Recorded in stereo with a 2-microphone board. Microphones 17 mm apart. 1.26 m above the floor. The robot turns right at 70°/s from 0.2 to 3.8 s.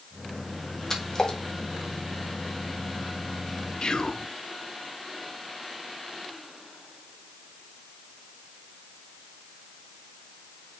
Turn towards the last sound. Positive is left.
turn(degrees=45)  # may be behind; listen again after turning